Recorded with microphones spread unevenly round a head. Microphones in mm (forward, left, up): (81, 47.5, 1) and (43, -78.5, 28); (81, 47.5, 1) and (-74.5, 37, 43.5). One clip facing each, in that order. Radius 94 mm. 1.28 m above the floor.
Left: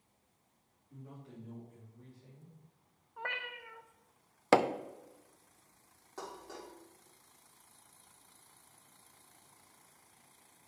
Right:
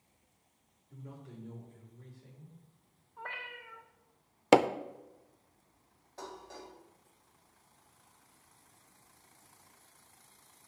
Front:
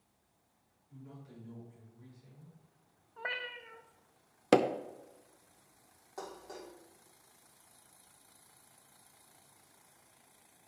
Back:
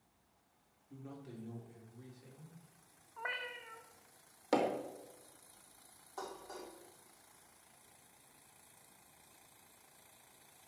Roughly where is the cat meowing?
Ahead left.